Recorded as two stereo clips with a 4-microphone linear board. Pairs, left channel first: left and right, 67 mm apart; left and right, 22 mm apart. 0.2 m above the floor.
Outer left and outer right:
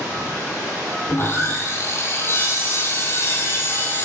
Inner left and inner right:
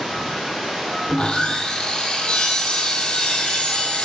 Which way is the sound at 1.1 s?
40° left (ahead or behind).